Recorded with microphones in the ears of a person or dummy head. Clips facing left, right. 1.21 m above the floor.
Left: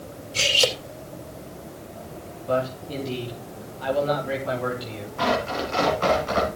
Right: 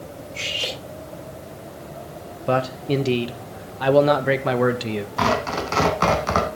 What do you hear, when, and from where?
0.3 s cutlery clinking: 85° left, 3 m
2.5 s a man speaking: 75° right (ahead or behind), 1.3 m
5.2 s tearing paper: 65° right (ahead or behind), 3 m